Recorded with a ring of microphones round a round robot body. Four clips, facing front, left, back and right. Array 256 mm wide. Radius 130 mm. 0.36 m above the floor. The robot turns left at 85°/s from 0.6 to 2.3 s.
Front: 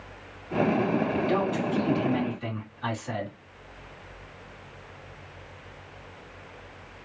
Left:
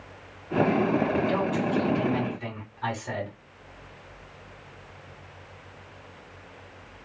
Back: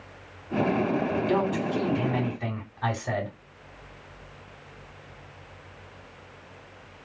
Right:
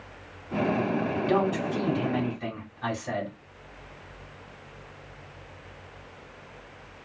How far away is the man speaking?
About 3 m.